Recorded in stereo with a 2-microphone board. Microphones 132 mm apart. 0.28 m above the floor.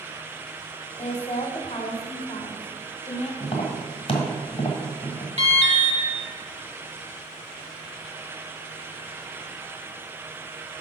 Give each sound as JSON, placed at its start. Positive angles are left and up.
{"t": 1.0, "sound": "a woman speaking", "side_deg": 45, "distance_m": 1.2}
{"t": 3.4, "sound": "tapping", "side_deg": 40, "distance_m": 1.2}
{"t": 5.4, "sound": "an alarm", "side_deg": -50, "distance_m": 1.2}